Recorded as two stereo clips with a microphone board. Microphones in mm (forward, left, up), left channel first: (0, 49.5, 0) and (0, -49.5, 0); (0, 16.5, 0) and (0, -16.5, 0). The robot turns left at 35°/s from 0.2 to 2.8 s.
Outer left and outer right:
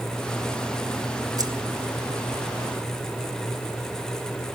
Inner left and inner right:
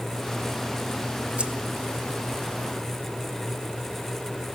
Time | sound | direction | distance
1.4 | keys jangling | 40° right (ahead or behind) | 1.6 m